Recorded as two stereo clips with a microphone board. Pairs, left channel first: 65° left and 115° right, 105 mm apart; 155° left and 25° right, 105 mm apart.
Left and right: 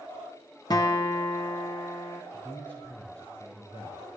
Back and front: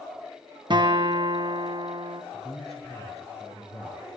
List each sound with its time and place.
0.7 s a guitar: 15° left, 1.0 m
2.3 s a man speaking: 140° left, 4 m